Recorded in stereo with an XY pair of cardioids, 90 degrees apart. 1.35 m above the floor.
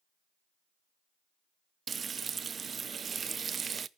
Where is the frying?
50° right, 0.7 m.